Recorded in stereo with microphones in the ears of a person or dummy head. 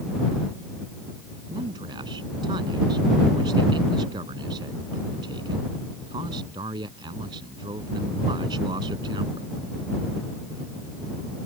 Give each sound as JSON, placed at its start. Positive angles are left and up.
{"t": 1.5, "sound": "a man speaking", "side_deg": -25}